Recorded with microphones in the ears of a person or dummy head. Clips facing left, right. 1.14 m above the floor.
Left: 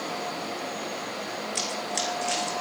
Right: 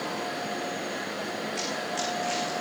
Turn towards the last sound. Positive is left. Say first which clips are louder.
# even
turn(degrees=65)  # may be behind; listen again after turning